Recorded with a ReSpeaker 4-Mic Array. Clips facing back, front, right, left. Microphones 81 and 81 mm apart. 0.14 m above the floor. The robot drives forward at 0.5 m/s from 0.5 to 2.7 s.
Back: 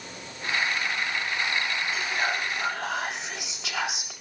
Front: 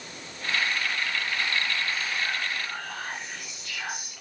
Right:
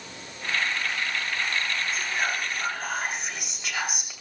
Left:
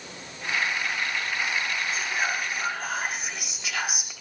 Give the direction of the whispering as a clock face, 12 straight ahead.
6 o'clock.